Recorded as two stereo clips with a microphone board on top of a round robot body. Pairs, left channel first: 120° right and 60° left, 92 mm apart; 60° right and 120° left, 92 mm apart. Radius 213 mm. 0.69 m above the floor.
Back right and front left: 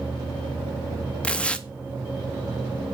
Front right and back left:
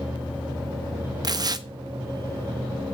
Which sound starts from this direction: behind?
Tearing paper, at 1.2 s.